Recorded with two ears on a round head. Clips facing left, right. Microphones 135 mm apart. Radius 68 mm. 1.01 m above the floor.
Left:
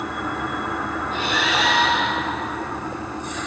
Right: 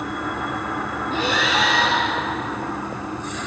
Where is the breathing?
70° right (ahead or behind), 1.8 m.